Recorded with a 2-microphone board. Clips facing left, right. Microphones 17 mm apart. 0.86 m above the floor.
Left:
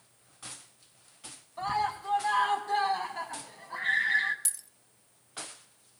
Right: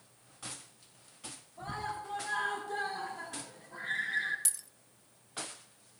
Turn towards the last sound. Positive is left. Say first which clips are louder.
# even
turn(degrees=-5)  # may be behind; listen again after turning